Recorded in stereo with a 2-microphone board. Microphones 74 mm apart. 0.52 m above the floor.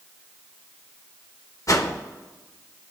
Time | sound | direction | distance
1.7 | a whoosh | 50° left (ahead or behind) | 0.7 m